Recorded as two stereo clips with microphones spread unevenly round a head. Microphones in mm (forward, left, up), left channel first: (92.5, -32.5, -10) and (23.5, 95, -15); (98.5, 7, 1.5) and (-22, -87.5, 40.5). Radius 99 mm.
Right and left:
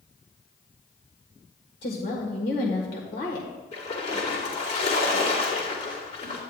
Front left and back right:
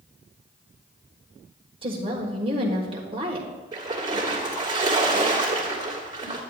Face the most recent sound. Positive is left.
turn(degrees=-95)